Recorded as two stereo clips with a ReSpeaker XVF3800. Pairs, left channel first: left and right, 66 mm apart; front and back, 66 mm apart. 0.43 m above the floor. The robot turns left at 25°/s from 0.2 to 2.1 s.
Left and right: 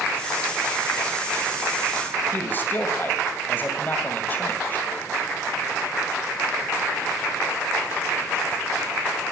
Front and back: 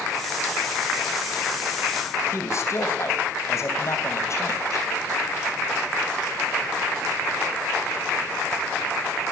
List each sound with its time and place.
2.3 s a man speaking: 35° left, 3 m